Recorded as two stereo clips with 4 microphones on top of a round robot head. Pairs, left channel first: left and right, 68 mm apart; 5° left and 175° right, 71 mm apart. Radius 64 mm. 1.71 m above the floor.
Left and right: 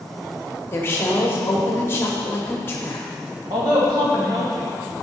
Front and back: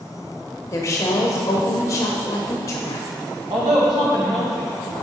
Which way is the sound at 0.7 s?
45° left.